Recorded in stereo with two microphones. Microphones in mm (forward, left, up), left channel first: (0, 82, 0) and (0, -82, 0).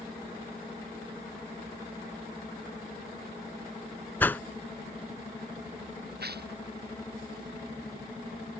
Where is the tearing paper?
75° right (ahead or behind).